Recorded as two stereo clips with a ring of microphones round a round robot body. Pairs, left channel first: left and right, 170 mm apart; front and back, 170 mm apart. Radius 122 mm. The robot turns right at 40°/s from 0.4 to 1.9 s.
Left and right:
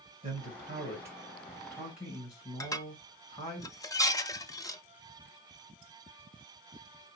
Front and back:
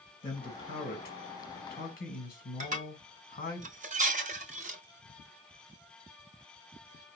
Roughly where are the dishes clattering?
Behind left.